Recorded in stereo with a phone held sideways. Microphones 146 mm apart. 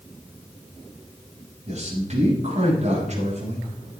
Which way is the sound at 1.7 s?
50° right (ahead or behind).